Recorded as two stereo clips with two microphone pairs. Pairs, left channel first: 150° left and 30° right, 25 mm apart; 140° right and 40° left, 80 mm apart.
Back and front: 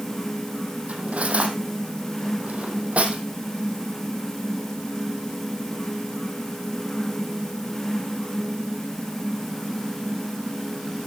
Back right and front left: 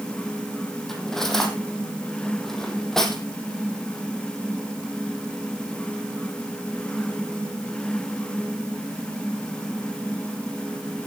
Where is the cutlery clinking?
50° right, 3 m.